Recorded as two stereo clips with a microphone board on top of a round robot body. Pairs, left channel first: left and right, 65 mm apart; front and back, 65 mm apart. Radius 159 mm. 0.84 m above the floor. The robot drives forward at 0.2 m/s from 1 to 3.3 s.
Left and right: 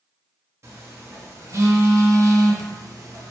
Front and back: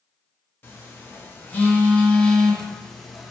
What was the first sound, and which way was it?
A phone buzzing, 50° right.